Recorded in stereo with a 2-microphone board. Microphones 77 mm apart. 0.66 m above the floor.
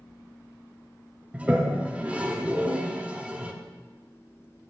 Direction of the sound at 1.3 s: 20° right (ahead or behind).